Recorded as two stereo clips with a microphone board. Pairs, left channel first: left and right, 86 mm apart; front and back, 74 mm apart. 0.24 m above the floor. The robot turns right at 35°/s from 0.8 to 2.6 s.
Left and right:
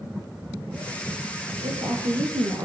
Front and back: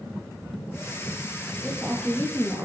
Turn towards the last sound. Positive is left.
turn(degrees=-60)